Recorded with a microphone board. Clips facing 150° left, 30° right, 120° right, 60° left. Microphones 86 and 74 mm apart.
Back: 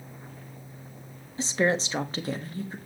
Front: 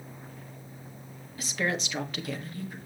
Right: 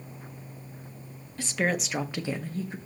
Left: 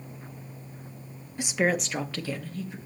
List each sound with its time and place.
1.4 s a woman speaking: 115° left, 0.9 m; by 2.8 s 155° right, 1.2 m